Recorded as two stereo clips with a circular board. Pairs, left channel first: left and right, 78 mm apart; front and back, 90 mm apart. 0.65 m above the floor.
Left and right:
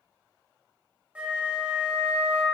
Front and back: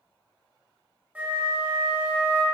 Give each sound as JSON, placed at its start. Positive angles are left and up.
{"t": 1.1, "sound": "a flute", "azimuth_deg": -140, "distance_m": 0.8}